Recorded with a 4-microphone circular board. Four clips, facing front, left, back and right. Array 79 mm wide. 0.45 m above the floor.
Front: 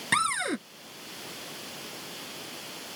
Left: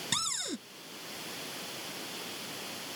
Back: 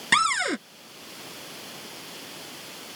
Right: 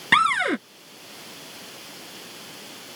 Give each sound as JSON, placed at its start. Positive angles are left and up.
{"t": 0.1, "sound": "a cupboard door", "azimuth_deg": -105}